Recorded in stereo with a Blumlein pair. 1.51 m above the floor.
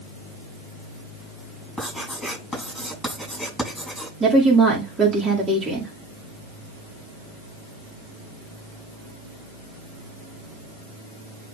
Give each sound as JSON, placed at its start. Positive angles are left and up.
{"t": 1.8, "sound": "writing", "azimuth_deg": 10, "distance_m": 7.5}
{"t": 4.2, "sound": "a woman speaking", "azimuth_deg": -15, "distance_m": 3.0}